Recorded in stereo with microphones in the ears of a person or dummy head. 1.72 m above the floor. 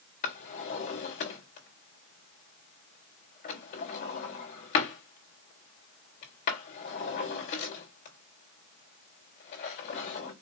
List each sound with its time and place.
0.2 s a drawer: 50° left (ahead or behind), 1.6 m